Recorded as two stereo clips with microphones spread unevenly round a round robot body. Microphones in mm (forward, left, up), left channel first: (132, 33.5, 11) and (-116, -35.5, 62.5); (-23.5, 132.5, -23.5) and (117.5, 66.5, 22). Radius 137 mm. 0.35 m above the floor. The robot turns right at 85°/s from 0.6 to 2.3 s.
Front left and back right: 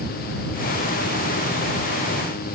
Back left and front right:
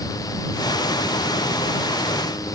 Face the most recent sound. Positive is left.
No sound to turn to.